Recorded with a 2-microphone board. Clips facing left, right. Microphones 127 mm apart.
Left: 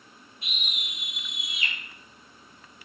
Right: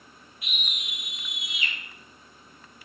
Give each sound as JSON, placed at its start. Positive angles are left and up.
{"t": 0.4, "sound": "a scream", "side_deg": 30, "distance_m": 3.5}